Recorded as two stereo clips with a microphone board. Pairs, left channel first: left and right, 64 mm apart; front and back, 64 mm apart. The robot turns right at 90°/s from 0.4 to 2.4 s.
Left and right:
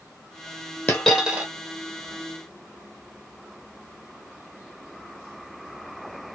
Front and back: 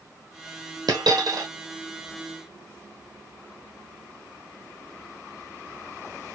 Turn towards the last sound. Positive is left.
turn(degrees=-65)